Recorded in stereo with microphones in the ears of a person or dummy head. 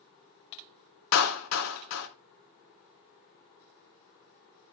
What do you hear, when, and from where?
1.1 s a clap: 80° left, 2.5 m